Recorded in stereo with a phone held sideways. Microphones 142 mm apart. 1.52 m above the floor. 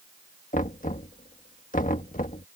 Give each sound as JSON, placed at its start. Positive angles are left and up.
{"t": 0.5, "sound": "knocking", "side_deg": 70}